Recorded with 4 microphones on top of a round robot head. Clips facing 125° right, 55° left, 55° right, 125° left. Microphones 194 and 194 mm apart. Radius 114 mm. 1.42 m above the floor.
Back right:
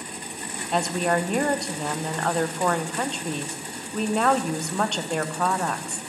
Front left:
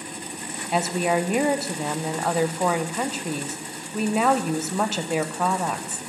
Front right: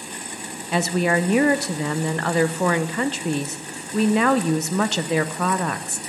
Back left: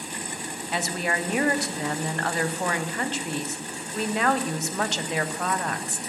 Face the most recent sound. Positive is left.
turn(degrees=-30)